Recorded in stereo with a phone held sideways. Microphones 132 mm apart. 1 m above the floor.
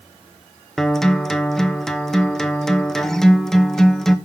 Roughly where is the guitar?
Centre.